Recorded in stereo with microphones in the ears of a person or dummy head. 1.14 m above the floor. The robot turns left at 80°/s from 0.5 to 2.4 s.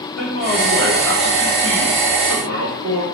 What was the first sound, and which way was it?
A man speaking, 55° left.